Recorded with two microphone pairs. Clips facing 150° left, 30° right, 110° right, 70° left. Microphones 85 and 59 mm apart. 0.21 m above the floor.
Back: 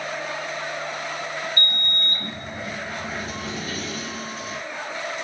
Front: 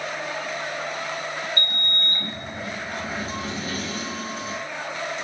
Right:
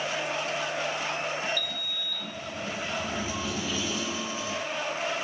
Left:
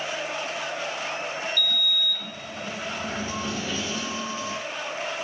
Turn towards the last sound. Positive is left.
turn(degrees=30)